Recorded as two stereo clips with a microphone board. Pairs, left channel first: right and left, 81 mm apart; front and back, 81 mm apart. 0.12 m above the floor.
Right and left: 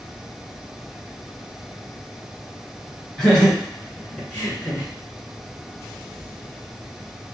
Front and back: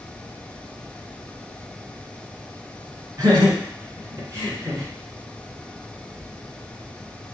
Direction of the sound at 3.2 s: 165° right.